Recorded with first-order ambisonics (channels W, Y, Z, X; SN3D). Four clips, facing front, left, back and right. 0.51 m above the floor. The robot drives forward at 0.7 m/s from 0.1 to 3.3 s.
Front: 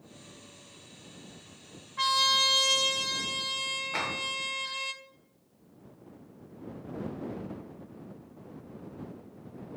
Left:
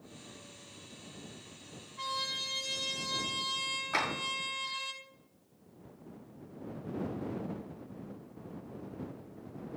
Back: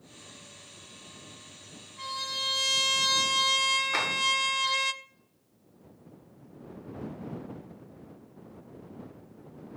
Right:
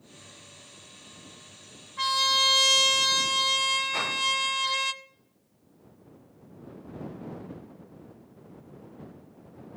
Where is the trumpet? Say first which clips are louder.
Right 13 dB, front 9 dB; 40° right, 0.7 m; by 4.9 s 135° right, 0.6 m.